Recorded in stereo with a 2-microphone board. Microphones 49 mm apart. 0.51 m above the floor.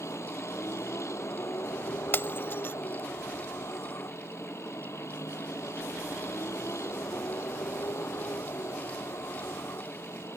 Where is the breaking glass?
50° left (ahead or behind).